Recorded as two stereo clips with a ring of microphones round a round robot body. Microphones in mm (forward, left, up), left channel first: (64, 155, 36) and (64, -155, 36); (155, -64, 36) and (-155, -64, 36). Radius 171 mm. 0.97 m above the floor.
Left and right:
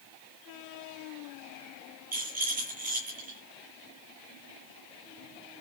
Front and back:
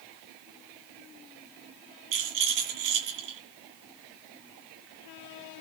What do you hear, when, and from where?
2.1 s a rattle: 160° right, 10 m